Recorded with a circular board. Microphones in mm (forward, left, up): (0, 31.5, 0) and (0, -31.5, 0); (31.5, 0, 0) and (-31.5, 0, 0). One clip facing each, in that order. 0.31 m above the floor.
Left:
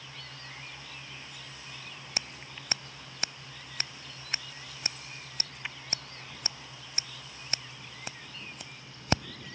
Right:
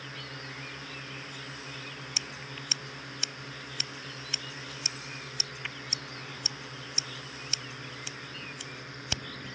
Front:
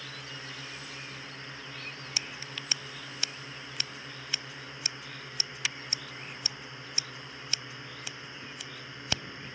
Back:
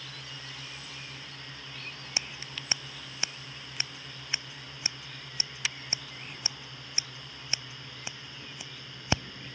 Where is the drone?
60° right.